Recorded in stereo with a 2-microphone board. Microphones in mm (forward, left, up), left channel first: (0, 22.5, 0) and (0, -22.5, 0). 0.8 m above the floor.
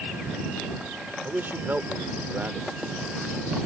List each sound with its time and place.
1.2 s a man speaking: 50° right (ahead or behind)